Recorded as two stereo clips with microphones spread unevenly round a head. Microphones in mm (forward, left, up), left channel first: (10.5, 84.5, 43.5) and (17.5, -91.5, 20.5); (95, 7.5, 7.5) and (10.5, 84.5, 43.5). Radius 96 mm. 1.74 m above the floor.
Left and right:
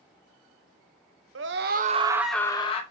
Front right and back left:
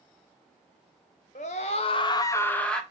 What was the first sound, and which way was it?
A scream, 100° right.